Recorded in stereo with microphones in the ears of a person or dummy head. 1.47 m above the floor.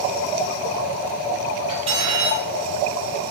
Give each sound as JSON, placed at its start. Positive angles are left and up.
{"t": 1.7, "sound": "cutlery clinking", "side_deg": -35, "distance_m": 1.7}